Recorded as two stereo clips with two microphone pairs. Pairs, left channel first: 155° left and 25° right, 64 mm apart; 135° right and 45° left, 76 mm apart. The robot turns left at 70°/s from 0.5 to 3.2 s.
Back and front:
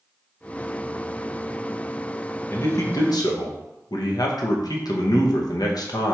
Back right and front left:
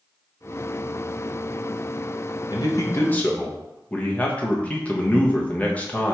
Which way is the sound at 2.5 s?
155° right.